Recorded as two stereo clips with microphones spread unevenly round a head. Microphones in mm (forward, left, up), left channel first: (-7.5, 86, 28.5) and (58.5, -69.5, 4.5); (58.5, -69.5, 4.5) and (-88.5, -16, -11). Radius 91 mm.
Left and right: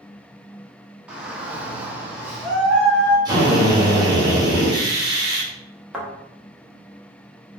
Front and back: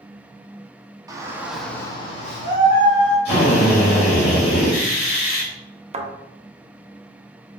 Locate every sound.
1.1 s a shout: 145° right, 0.8 m; by 3.1 s 15° left, 1.1 m
3.2 s a drill: straight ahead, 1.8 m
5.9 s a thud: 160° right, 0.6 m